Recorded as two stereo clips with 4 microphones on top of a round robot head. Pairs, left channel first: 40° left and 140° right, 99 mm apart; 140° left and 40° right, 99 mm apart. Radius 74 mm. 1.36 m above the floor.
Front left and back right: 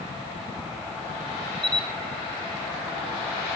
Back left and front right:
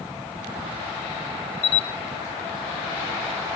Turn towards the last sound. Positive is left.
turn(degrees=130)